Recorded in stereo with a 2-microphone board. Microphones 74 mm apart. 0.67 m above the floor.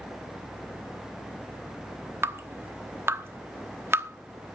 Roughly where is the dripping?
Right.